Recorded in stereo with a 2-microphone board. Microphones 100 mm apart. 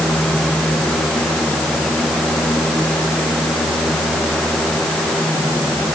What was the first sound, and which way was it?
Only background noise.